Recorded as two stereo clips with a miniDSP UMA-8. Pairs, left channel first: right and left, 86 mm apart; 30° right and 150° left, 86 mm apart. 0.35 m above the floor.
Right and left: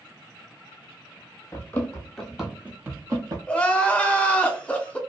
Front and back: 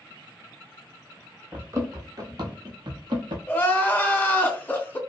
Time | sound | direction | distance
1.5 | running footsteps | 150° right | 0.8 m
3.5 | crying | 40° right | 0.6 m